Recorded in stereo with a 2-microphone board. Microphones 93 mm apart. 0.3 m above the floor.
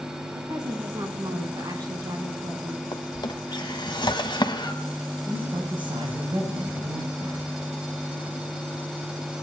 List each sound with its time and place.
0.3 s a woman speaking: 45° right (ahead or behind), 2.5 m
2.9 s a drawer: 50° left (ahead or behind), 1.1 m
5.2 s a man speaking: 60° right (ahead or behind), 7.5 m